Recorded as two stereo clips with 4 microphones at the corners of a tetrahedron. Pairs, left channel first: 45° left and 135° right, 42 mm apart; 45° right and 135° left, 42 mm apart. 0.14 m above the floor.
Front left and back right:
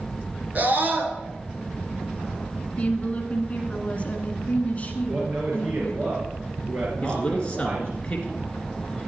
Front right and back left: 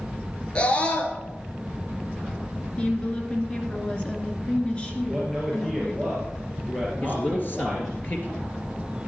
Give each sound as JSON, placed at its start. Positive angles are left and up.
{"t": 0.6, "sound": "a scream", "azimuth_deg": -100, "distance_m": 1.9}
{"t": 2.8, "sound": "a woman speaking", "azimuth_deg": 5, "distance_m": 1.6}
{"t": 5.1, "sound": "a man speaking", "azimuth_deg": -135, "distance_m": 2.5}
{"t": 7.0, "sound": "a man speaking", "azimuth_deg": -15, "distance_m": 2.5}